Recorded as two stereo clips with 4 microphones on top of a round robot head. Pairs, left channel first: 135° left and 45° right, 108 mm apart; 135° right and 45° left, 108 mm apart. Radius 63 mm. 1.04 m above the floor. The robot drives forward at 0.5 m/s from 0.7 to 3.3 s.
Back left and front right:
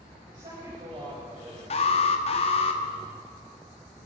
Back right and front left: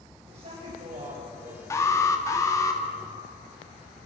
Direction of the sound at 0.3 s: 5° left.